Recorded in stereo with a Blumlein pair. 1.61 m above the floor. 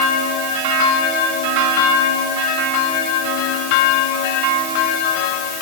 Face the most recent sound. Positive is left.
No sound to turn to.